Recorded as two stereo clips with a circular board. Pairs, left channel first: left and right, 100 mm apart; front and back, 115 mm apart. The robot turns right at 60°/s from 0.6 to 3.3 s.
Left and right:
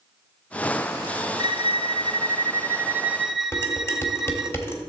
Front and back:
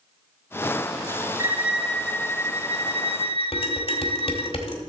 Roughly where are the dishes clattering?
Ahead left.